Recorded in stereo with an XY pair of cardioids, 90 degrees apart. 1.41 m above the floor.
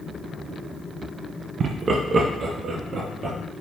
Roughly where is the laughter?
Ahead right.